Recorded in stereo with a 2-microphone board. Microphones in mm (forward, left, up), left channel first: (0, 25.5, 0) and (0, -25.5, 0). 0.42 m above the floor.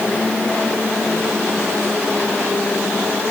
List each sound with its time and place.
Only background noise.